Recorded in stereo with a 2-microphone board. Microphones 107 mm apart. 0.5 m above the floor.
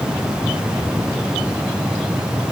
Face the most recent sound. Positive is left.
No sound to turn to.